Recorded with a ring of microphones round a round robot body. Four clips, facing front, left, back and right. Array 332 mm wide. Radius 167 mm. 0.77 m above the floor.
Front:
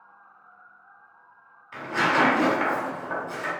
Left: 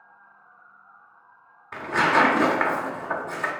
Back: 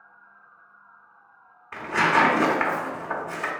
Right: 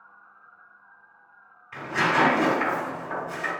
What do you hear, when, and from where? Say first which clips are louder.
1.7 s tearing paper: left 3 dB, back 2 dB; 120° left, 0.7 m